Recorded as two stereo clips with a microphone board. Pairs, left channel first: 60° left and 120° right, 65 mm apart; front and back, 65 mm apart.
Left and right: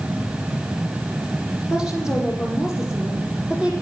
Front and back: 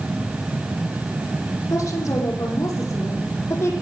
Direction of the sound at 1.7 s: 40° right.